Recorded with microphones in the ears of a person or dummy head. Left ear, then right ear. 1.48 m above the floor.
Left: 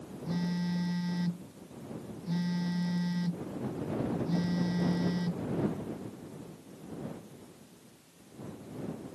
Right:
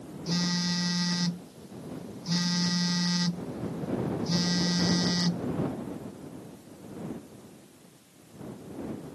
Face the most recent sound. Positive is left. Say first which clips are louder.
# right 8 dB
turn(degrees=-45)  # may be behind; listen again after turning